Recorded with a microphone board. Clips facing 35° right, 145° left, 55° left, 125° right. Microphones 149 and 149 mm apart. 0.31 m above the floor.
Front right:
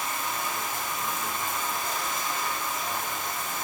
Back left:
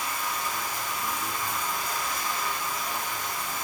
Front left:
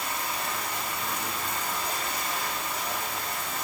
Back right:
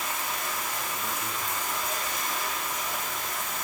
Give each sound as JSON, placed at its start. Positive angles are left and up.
{"t": 0.0, "sound": "running water", "azimuth_deg": 30, "distance_m": 6.0}